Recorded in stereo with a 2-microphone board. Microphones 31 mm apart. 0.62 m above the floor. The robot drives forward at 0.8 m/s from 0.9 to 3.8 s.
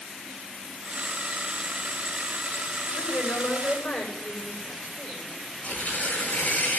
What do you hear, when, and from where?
3.0 s a woman speaking: 80° left, 7.5 m
5.6 s tearing paper: 80° left, 7 m